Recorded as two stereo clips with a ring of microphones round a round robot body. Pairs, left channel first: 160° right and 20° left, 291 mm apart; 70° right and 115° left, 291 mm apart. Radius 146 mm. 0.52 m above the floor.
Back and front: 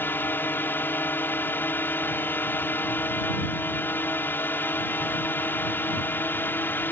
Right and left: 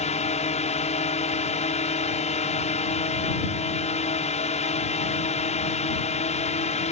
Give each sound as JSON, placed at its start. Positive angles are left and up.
{"t": 0.0, "sound": "a drone", "azimuth_deg": -85}